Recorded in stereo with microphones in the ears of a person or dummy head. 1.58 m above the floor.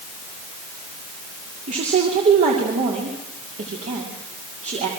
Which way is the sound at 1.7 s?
40° right (ahead or behind).